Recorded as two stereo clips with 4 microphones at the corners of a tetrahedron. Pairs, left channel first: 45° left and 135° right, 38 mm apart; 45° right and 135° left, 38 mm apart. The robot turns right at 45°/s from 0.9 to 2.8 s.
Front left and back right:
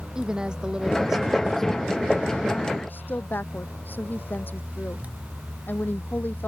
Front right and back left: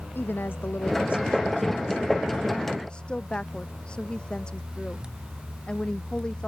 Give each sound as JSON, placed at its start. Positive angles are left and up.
{"t": 0.1, "sound": "a woman speaking", "azimuth_deg": -65}